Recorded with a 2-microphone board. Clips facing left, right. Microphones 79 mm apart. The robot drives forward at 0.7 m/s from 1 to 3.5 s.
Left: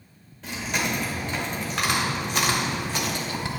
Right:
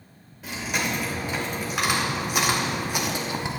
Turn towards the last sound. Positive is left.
turn(degrees=-20)  # may be behind; listen again after turning